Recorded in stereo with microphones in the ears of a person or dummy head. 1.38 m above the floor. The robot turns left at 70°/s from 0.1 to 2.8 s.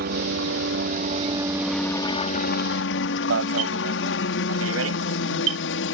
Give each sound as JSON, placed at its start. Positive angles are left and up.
{"t": 0.0, "sound": "a helicopter", "azimuth_deg": -65}
{"t": 3.3, "sound": "an alarm", "side_deg": -80}